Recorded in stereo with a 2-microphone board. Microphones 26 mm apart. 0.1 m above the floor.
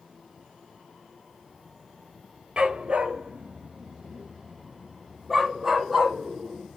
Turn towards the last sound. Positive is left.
turn(degrees=0)  # may be behind; listen again after turning